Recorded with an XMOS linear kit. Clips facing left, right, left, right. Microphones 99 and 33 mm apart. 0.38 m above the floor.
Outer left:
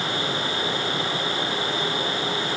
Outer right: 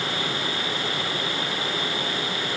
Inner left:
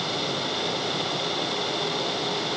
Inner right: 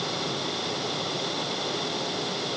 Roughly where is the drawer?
I don't hear a drawer.